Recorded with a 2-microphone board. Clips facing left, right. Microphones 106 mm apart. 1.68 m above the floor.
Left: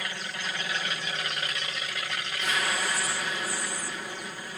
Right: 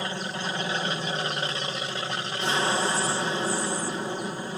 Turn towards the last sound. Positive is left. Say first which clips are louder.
# right 5 dB
turn(degrees=-30)  # may be behind; listen again after turning